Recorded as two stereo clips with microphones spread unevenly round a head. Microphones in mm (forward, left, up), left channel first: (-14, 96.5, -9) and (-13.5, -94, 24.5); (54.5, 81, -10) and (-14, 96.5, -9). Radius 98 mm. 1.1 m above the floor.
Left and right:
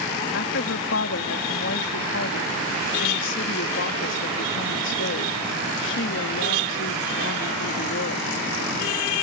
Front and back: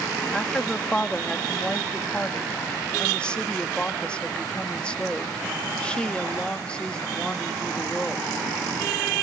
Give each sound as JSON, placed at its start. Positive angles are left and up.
{"t": 0.3, "sound": "a woman speaking", "azimuth_deg": 65}